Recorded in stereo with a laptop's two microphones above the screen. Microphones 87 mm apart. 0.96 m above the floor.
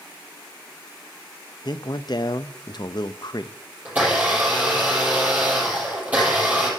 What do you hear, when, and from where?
1.6 s a man speaking: 50° left (ahead or behind), 0.6 m
3.9 s a blender: 15° right (ahead or behind), 7 m